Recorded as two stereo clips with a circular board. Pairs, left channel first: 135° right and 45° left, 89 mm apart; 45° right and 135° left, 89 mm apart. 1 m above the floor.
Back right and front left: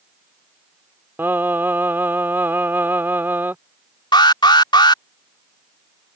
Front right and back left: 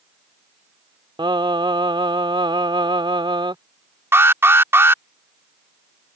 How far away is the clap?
I don't hear a clap.